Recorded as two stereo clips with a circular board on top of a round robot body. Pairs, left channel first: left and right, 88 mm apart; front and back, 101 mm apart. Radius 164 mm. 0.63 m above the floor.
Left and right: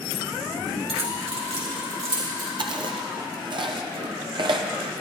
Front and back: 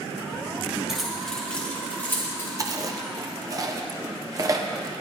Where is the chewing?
125° right, 0.8 m.